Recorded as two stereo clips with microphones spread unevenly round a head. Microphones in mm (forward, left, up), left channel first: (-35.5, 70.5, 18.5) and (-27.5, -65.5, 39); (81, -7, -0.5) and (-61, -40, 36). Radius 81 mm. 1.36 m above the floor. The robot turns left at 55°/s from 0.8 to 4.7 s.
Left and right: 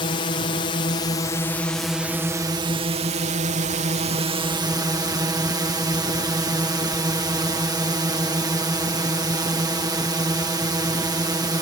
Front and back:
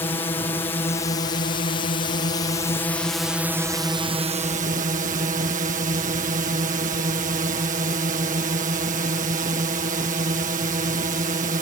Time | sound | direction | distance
0.0 | a drone | 70° left | ?